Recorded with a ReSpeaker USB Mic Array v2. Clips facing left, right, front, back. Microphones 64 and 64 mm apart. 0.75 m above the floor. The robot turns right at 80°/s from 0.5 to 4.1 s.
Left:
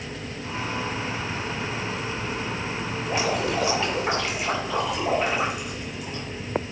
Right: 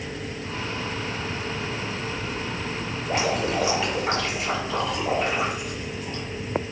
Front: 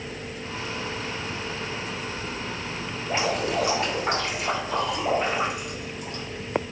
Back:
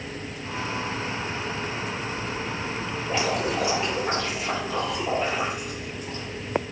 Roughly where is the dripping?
Right.